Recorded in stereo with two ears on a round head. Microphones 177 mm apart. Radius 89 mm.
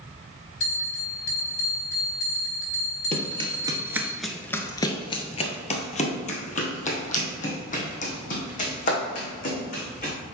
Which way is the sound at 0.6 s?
65° left (ahead or behind).